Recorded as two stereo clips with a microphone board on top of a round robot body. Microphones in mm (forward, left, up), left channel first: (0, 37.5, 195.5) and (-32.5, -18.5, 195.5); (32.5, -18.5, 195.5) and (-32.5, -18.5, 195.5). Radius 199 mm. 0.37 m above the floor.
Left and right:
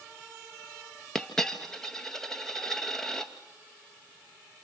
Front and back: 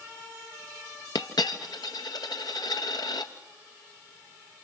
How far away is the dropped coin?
About 1.7 m.